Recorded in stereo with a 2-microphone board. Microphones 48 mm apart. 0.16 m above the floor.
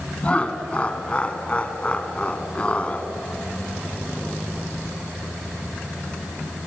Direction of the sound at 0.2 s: 25° left (ahead or behind).